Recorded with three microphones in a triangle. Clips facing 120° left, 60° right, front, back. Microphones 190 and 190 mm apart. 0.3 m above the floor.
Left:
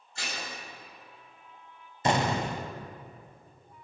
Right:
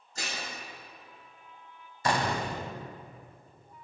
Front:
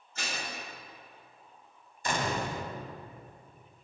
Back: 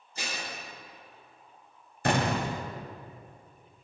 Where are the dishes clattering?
105° right, 3 m.